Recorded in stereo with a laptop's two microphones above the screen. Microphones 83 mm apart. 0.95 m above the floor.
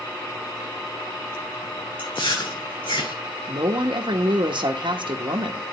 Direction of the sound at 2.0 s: 75° left (ahead or behind).